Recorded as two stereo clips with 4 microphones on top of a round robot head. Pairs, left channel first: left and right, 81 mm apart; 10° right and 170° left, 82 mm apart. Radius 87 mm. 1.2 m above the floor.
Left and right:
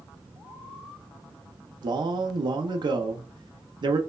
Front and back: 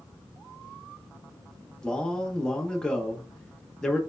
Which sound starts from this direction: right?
A man speaking, at 1.8 s.